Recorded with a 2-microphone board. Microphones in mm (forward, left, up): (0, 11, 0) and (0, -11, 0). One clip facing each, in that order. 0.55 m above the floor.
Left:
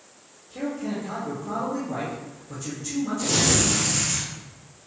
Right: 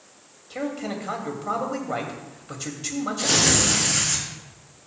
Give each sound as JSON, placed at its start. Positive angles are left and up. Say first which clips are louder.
{"t": 0.5, "sound": "a man speaking", "louder": "even", "side_deg": -60, "distance_m": 2.5}
{"t": 3.2, "sound": "tearing paper", "louder": "right 3 dB", "side_deg": -65, "distance_m": 4.0}